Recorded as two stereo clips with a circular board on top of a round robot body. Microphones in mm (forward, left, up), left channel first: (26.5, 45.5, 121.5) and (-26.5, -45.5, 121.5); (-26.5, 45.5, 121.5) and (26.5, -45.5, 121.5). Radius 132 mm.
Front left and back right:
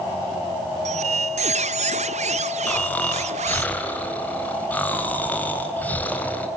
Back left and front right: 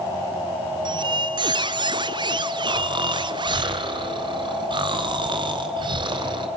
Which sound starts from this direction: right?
A squeak, at 0.8 s.